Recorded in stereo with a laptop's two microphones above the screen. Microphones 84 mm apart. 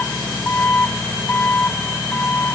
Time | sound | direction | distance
0.0 | an engine running | 20° left (ahead or behind) | ?